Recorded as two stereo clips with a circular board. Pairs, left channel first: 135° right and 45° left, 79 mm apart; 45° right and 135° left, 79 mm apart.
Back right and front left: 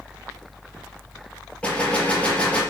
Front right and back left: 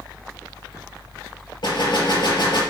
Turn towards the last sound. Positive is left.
turn(degrees=-65)